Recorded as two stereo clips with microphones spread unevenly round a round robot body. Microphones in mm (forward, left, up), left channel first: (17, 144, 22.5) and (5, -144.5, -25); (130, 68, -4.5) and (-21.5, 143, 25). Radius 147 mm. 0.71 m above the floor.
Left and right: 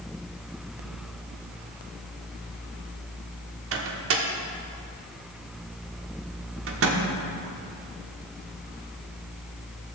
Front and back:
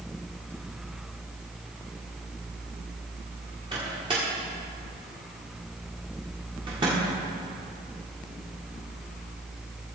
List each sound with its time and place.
3.7 s a microwave: 130° right, 1.4 m